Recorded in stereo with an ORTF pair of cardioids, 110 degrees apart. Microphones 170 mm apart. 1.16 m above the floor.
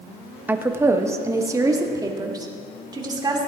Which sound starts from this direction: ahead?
A woman speaking, at 0.5 s.